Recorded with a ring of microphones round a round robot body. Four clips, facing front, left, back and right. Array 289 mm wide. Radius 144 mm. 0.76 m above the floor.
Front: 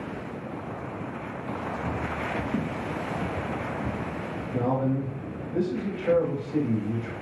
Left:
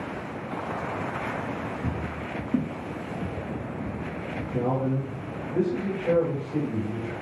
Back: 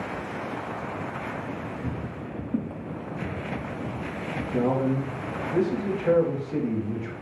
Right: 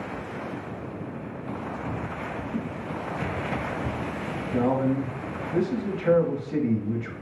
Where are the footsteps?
90° left, 1.5 m; by 4.0 s 90° right, 1.4 m.